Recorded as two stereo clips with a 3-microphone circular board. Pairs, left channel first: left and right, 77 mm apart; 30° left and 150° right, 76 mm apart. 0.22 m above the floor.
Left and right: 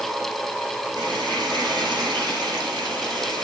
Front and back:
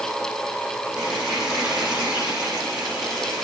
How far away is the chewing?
No chewing in this recording.